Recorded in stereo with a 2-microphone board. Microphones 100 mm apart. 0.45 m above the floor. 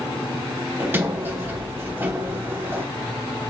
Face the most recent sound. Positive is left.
turn(degrees=-20)  # may be behind; listen again after turning